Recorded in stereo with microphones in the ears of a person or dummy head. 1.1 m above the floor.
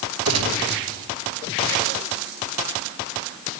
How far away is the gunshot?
About 1.4 m.